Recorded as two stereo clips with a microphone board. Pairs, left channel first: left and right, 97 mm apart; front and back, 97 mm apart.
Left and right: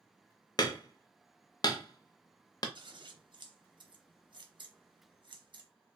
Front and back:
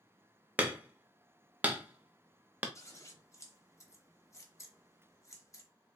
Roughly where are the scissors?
Ahead right.